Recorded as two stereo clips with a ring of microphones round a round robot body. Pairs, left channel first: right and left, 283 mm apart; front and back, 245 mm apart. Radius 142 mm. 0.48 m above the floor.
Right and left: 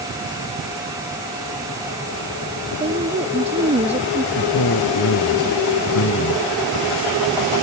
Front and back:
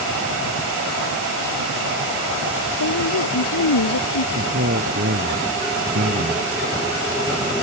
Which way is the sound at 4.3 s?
130° right.